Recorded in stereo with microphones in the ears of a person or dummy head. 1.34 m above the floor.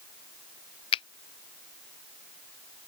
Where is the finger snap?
30° left (ahead or behind).